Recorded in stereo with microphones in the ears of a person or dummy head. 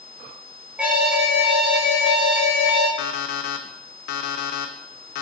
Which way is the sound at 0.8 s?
5° right (ahead or behind).